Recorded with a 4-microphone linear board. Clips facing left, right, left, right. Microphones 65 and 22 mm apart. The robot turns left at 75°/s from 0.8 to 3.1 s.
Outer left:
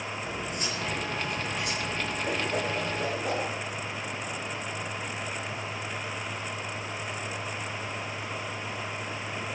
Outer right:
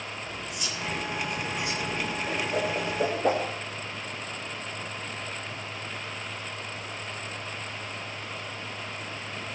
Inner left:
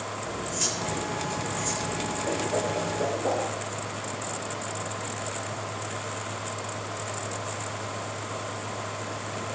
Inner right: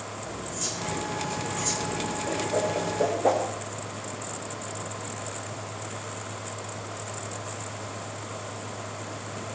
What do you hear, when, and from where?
0.2 s cutlery clinking: 40° left, 3.5 m; by 2.2 s 60° right, 3.5 m
2.3 s a whoosh: 20° left (ahead or behind), 6 m; by 3.5 s 40° right (ahead or behind), 6 m